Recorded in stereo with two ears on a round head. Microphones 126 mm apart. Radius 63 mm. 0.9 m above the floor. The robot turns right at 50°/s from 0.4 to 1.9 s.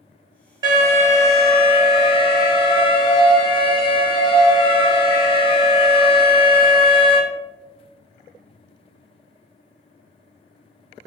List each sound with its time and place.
0.6 s an alarm: 30° right, 1.3 m; by 7.2 s 30° left, 1.3 m